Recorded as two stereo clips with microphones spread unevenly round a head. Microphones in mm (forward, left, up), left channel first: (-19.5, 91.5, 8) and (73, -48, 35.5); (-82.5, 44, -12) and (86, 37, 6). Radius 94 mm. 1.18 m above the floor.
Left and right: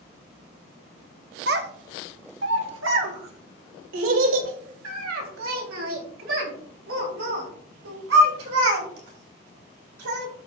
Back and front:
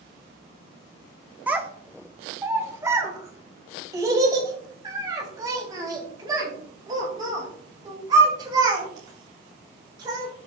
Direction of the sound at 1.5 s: 80° right.